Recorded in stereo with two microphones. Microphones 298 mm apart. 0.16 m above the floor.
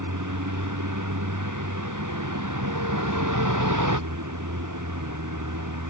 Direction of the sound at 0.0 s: 85° right.